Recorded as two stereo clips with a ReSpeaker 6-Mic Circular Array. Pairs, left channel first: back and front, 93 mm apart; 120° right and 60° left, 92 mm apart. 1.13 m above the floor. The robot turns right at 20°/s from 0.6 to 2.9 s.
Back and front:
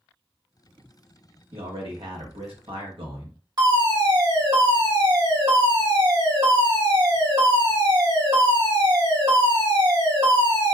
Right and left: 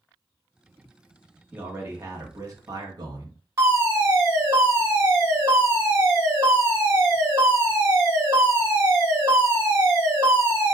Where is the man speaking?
10° right, 1.1 m; by 3.4 s 15° left, 1.1 m.